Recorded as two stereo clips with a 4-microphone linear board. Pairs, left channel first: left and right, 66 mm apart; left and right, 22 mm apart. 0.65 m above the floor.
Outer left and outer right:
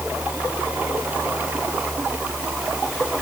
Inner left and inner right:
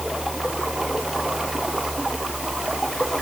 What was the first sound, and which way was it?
Only background noise.